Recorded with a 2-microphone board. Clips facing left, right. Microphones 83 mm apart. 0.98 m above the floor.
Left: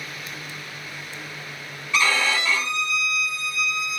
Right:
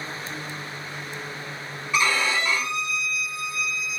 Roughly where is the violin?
Centre.